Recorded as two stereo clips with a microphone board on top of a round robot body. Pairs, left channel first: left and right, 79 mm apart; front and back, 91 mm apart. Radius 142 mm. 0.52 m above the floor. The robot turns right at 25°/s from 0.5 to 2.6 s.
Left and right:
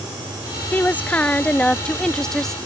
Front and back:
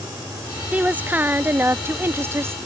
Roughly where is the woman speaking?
Behind left.